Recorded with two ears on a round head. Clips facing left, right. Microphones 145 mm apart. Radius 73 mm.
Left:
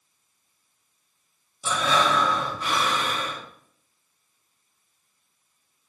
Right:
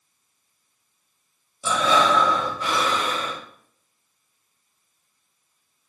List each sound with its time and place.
1.6 s breathing: 70° right (ahead or behind), 1.4 m